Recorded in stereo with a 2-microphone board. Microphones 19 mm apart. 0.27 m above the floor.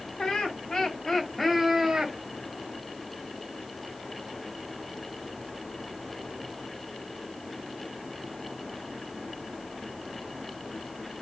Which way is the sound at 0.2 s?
55° left (ahead or behind).